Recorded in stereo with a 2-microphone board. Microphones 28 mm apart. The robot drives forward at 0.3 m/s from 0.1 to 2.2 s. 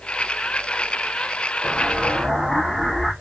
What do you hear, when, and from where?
1.6 s an explosion: 5° left (ahead or behind), 1.9 m